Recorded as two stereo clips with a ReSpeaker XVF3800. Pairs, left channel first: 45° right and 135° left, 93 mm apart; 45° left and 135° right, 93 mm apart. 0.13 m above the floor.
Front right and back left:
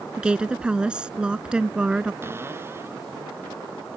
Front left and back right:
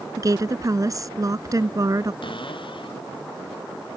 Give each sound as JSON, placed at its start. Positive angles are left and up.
{"t": 0.2, "sound": "a woman speaking", "azimuth_deg": -150}
{"t": 2.2, "sound": "a cupboard door", "azimuth_deg": 70}